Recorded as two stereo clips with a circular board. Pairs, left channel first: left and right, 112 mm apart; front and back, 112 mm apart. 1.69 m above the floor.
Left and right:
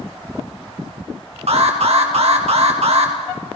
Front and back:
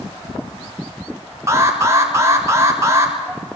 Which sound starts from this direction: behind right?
An alarm, at 1.5 s.